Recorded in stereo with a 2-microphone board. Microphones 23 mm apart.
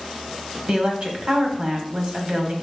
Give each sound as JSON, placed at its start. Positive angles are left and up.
{"t": 0.7, "sound": "a woman speaking", "side_deg": -40, "distance_m": 1.8}